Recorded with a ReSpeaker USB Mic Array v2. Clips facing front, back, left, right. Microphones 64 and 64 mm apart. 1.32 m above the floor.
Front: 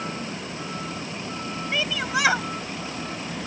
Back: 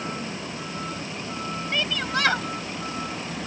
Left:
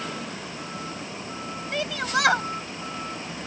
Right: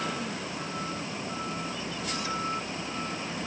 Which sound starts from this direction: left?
A shout, at 1.7 s.